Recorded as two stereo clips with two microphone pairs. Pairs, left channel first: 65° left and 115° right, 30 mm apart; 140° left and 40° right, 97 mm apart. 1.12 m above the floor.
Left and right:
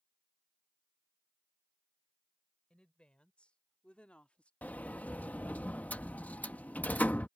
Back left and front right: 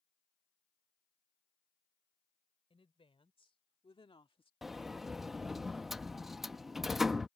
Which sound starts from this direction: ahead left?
A sliding door, at 4.6 s.